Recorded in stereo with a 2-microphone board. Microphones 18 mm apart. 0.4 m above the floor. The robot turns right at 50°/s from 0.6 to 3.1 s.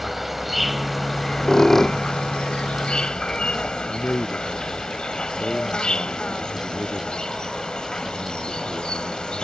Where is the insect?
5° right; by 9.4 s 120° left.